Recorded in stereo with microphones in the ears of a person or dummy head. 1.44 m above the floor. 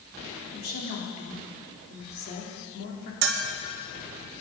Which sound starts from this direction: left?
A woman speaking, at 0.5 s.